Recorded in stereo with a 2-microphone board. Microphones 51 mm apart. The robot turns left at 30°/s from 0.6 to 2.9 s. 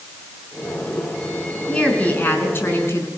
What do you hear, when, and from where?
1.7 s a woman speaking: 160° left, 5 m; by 3.1 s 125° left, 5 m